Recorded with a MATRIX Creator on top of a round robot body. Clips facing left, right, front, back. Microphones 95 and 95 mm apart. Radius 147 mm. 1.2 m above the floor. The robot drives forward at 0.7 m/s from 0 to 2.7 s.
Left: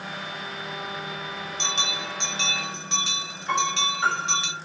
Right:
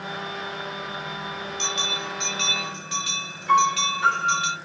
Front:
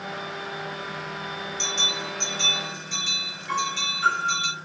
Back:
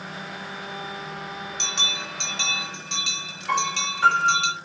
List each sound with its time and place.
1.6 s a bell: 150° left, 2.5 m; by 4.5 s 155° left, 3 m
3.5 s a piano: 145° left, 5 m